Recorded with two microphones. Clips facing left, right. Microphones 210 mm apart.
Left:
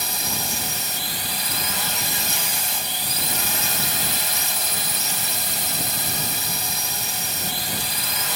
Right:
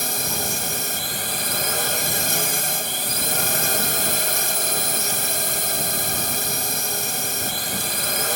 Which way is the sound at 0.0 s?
50° right (ahead or behind).